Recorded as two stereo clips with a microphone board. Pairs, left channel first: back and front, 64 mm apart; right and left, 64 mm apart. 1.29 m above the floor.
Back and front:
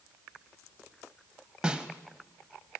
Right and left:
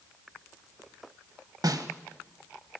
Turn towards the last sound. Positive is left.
turn(degrees=75)